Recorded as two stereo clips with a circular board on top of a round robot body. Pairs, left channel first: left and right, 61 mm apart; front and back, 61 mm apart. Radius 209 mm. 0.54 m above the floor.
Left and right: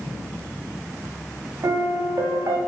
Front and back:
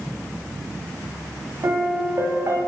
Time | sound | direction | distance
1.6 | a piano | 130° right | 1.1 m